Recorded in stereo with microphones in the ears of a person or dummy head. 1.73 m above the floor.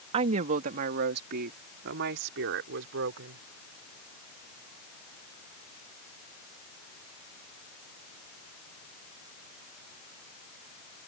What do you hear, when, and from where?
0.1 s a woman speaking: 40° right (ahead or behind); by 3.4 s 75° right (ahead or behind)